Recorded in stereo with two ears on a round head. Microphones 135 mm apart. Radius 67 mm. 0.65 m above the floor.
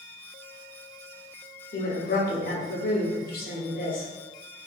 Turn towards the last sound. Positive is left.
turn(degrees=60)  # may be behind; listen again after turning